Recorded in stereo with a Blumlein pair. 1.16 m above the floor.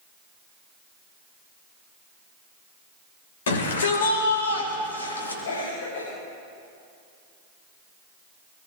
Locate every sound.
3.5 s a shout: 60° left, 4 m; by 5.3 s 80° left, 3 m
5.5 s a cough: 60° left, 5.5 m